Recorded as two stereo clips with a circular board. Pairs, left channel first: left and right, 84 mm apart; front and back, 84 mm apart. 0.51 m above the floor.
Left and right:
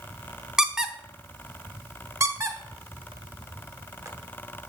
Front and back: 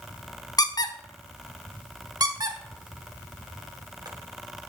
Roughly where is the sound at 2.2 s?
Behind right.